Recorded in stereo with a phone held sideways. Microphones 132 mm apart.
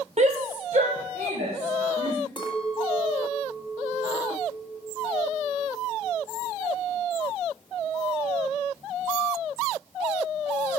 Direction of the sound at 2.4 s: 35° left (ahead or behind).